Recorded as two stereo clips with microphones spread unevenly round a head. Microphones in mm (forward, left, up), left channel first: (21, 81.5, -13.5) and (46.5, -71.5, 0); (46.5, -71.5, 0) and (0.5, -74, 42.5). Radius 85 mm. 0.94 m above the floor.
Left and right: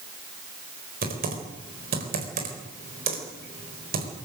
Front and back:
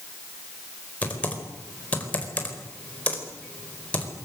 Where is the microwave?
No microwave in this recording.